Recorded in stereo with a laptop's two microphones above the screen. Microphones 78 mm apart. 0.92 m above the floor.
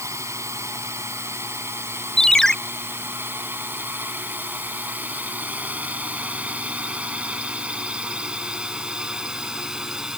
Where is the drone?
40° right (ahead or behind); by 10.2 s 5° right (ahead or behind).